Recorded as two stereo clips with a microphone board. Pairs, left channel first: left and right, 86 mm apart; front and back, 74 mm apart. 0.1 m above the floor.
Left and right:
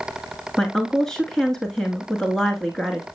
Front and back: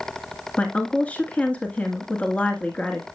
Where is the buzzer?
I don't hear a buzzer.